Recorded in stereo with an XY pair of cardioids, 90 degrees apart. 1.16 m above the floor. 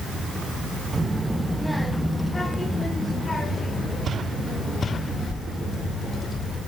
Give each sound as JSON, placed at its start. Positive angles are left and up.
{"t": 0.9, "sound": "a child speaking", "azimuth_deg": -25, "distance_m": 0.9}